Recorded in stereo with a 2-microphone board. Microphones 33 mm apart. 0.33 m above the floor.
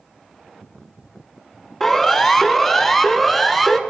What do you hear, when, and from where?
1.8 s a siren: centre (ahead or behind), 3 m; by 3.8 s 5° right (ahead or behind), 4 m